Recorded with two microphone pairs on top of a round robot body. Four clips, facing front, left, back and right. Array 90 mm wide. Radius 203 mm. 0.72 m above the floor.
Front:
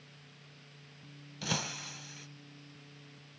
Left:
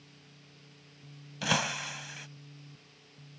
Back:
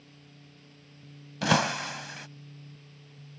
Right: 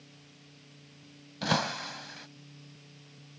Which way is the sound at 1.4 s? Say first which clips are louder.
Right 2 dB, back 13 dB; 160° right.